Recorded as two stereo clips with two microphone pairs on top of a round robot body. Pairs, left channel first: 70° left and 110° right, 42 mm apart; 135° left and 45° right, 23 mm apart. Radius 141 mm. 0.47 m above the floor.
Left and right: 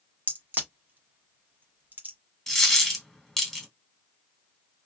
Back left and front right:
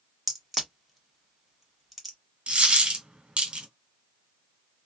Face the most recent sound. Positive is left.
turn(degrees=-10)